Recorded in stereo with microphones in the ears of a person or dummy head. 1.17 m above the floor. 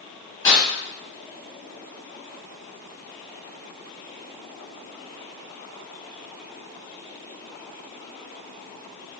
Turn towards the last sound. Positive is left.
turn(degrees=20)  # may be behind; listen again after turning